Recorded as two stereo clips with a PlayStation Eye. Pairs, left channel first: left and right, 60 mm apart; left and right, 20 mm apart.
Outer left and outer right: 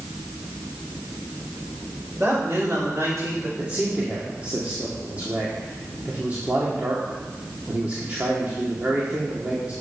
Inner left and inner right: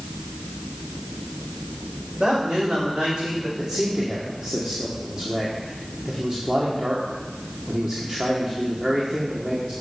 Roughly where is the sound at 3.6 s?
Right.